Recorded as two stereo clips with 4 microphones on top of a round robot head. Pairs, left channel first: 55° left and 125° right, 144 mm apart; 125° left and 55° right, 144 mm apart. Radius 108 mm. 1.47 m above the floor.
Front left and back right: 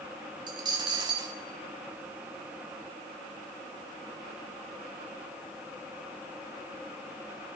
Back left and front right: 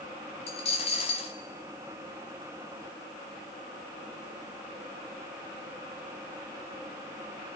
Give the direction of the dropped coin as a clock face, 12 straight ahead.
6 o'clock.